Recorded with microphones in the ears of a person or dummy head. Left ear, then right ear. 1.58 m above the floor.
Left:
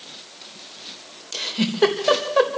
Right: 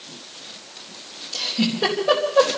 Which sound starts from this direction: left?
A giggle, at 1.3 s.